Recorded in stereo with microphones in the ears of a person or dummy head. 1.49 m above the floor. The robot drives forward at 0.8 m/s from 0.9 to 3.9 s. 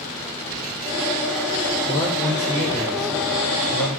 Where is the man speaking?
25° left (ahead or behind), 6 m; by 4.0 s 20° left (ahead or behind), 7.5 m.